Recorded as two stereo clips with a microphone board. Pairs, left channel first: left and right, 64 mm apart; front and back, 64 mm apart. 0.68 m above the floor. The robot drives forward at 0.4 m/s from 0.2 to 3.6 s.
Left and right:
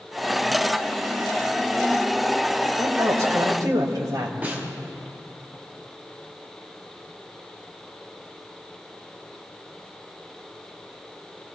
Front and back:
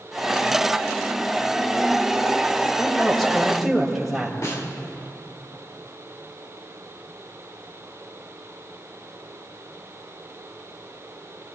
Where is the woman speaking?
85° right, 3 m; by 4.3 s 90° right, 3 m.